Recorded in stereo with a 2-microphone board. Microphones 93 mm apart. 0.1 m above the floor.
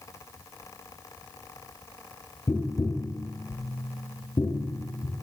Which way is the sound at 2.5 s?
40° left (ahead or behind).